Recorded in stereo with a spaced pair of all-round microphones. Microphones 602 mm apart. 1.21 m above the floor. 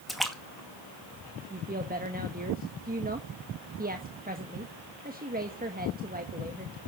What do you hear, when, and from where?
0.1 s a splash: centre (ahead or behind), 2 m
1.5 s a woman speaking: 15° right (ahead or behind), 1.3 m